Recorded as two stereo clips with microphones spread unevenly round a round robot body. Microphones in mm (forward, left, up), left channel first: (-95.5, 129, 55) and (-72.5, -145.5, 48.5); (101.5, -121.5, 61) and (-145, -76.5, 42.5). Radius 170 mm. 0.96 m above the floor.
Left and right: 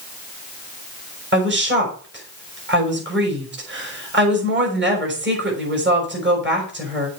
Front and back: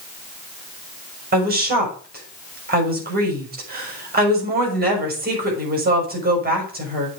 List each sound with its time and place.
1.3 s a woman speaking: 135° right, 6 m